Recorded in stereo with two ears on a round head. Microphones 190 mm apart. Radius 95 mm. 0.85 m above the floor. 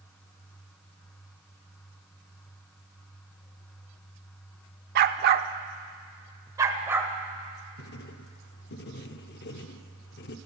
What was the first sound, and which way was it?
A dog barking, 45° right (ahead or behind).